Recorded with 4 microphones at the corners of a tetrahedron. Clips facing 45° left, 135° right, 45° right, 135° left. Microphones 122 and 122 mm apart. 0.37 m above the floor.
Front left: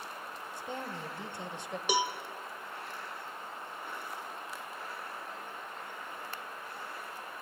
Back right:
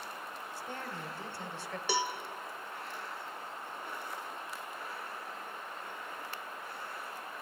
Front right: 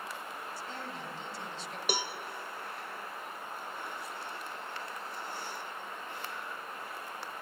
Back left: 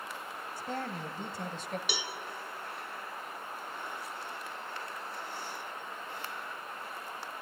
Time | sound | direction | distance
0.6 | a woman speaking | 115° left | 1.6 m
1.9 | a cowbell | 30° right | 0.9 m